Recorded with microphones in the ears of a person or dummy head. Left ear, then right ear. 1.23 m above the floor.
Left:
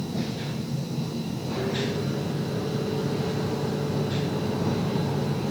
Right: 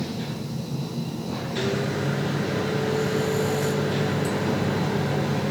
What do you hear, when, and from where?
1.6 s a microwave: 65° right (ahead or behind), 1.1 m